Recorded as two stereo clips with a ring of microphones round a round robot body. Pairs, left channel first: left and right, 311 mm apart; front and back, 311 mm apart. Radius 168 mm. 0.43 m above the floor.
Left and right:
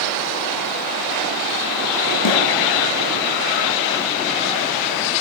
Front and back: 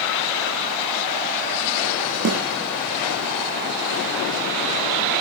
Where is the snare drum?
125° left, 9.5 m.